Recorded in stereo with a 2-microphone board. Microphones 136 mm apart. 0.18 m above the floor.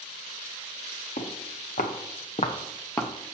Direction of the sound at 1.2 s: 80° left.